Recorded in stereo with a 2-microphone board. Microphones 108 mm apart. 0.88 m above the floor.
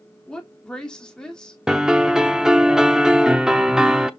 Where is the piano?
5° right (ahead or behind), 0.8 m.